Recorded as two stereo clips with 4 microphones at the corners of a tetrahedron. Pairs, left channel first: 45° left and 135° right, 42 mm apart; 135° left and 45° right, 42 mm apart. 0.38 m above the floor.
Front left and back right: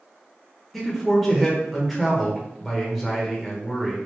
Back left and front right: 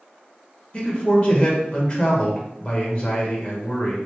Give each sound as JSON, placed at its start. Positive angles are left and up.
{"t": 0.7, "sound": "a man speaking", "azimuth_deg": 135, "distance_m": 0.9}